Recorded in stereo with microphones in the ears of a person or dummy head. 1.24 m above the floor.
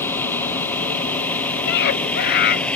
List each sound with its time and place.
0.0 s a vehicle: 20° left (ahead or behind); by 2.8 s 15° left (ahead or behind)
1.7 s a scream: 65° left (ahead or behind)